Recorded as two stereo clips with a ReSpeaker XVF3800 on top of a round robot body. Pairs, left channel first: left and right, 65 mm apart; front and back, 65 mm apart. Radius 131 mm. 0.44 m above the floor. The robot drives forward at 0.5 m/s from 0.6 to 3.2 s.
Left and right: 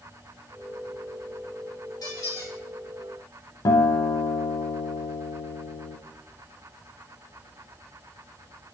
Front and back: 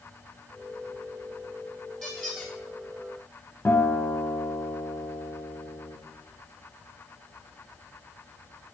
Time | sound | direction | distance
2.0 | a squeak | 95° left | 2.5 m
3.6 | a guitar | 70° left | 0.5 m